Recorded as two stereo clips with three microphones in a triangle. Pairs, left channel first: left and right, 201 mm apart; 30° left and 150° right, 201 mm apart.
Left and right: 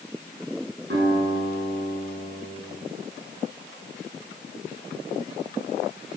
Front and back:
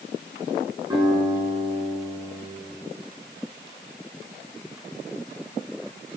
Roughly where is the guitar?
Right.